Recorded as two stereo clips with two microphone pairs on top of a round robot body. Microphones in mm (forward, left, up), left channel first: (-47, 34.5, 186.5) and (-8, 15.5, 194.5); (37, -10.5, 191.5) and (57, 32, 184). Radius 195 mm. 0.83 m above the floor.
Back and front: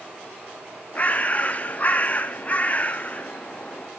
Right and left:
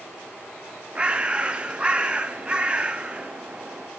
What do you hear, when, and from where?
0.9 s a bird: 115° left, 0.6 m